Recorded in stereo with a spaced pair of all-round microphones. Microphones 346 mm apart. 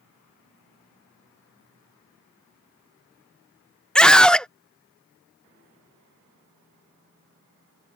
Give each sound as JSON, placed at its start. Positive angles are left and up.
{"t": 4.0, "sound": "a scream", "side_deg": 0}